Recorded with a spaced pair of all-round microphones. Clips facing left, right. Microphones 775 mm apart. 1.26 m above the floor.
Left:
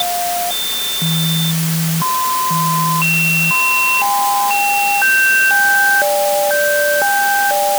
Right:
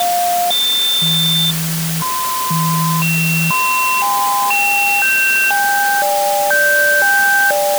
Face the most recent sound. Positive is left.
No sound to turn to.